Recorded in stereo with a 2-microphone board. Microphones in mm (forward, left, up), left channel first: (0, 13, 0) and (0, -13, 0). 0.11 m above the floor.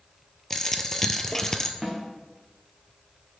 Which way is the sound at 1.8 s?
10° right (ahead or behind).